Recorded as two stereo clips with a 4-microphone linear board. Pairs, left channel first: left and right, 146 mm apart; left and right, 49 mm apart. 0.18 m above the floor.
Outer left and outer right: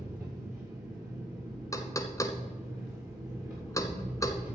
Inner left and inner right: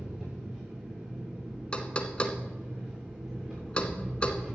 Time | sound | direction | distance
0.0 | an engine running | 15° right (ahead or behind) | 6 m
1.7 | knocking | 25° left (ahead or behind) | 1.1 m